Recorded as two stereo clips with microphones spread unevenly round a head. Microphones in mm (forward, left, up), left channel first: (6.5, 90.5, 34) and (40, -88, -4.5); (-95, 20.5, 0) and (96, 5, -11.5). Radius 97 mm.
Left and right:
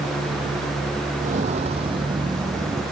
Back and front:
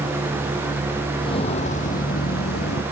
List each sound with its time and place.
1.2 s footsteps: 130° right; by 2.8 s 160° right